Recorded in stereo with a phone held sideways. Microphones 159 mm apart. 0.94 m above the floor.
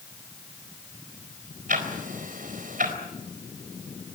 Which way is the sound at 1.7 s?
65° right (ahead or behind).